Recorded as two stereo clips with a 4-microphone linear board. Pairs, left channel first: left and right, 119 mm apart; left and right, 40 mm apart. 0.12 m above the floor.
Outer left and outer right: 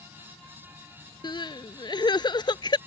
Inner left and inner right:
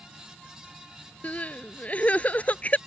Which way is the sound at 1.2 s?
40° left (ahead or behind).